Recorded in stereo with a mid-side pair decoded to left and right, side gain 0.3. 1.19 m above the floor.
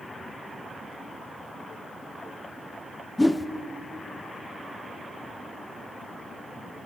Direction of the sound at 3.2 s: 15° left.